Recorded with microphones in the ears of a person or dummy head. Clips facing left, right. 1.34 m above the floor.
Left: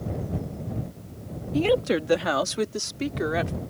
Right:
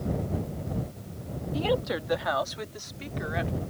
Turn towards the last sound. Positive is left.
turn(degrees=55)  # may be behind; listen again after turning